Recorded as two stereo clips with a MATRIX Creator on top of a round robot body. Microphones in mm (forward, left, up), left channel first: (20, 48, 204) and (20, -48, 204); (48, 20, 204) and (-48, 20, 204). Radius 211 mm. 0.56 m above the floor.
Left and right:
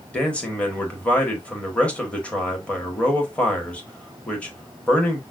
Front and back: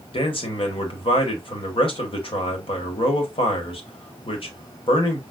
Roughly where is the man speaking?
Ahead.